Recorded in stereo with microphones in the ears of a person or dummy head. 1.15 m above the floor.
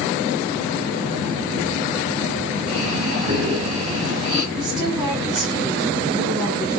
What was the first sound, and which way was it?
Breathing, 30° right (ahead or behind).